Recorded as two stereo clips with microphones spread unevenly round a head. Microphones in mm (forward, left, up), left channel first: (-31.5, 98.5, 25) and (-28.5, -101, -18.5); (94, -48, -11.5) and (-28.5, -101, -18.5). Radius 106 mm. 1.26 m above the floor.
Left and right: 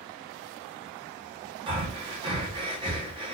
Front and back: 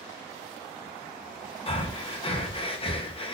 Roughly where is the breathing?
Ahead right.